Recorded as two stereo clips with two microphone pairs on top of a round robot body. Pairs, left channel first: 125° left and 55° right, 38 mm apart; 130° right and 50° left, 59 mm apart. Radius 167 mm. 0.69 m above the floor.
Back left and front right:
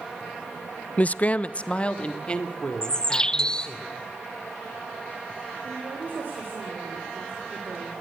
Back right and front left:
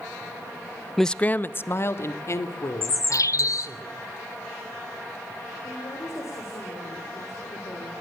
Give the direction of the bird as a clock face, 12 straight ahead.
5 o'clock.